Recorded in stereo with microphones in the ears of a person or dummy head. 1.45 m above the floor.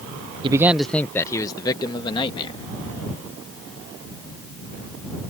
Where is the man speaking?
30° right (ahead or behind); by 2.6 s 30° left (ahead or behind).